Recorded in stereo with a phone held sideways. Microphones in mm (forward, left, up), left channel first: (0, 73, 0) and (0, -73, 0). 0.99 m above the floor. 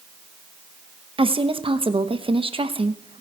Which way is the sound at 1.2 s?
35° right (ahead or behind).